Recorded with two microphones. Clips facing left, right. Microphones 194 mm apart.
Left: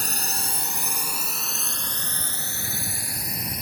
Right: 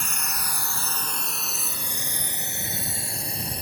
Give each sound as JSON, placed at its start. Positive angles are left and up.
{"t": 0.0, "sound": "a drone", "side_deg": 40}